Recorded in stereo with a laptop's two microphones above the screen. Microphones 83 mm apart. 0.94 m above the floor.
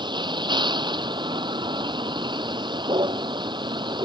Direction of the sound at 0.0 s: 70° right (ahead or behind).